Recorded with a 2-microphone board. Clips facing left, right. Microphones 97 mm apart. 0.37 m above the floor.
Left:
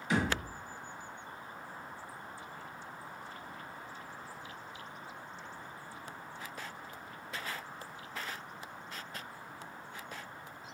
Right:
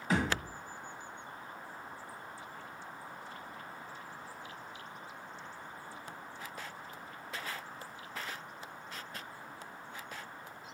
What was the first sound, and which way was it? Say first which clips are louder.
A thud: even; 40° right (ahead or behind).